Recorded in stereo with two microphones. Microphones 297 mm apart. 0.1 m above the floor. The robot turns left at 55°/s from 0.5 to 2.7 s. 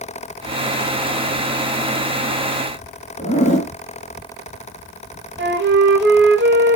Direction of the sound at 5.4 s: 40° right (ahead or behind).